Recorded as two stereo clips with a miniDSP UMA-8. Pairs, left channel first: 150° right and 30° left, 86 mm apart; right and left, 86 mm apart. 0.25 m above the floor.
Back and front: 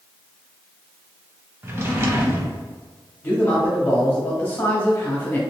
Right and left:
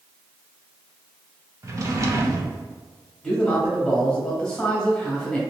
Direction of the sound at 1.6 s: 70° left.